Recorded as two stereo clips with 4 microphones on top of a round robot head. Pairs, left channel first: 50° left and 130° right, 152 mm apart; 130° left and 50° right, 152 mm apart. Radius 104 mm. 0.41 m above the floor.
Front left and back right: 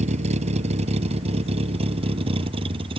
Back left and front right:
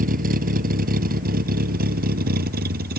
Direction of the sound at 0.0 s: 85° right.